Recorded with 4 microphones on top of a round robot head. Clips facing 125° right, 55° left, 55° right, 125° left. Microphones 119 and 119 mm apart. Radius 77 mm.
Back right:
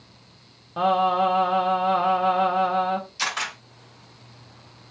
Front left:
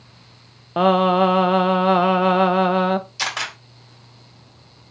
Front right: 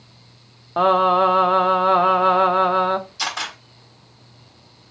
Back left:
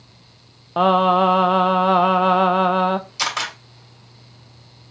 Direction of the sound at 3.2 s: 95° left.